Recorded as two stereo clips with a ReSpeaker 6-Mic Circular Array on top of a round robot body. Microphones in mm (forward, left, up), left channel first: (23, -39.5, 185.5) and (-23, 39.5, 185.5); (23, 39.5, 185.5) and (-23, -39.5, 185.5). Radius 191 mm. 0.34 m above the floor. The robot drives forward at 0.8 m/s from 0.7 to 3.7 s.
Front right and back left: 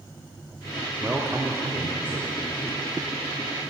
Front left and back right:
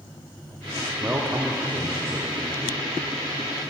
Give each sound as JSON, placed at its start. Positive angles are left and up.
{"t": 1.0, "sound": "a man speaking", "azimuth_deg": -175, "distance_m": 1.1}